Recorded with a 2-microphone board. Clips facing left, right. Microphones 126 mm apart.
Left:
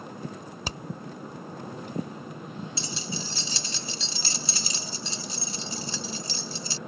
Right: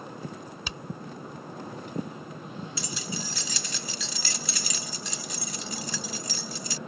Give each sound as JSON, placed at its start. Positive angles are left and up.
{"t": 0.7, "sound": "hammering", "side_deg": 35}
{"t": 2.8, "sound": "keys jangling", "side_deg": 30}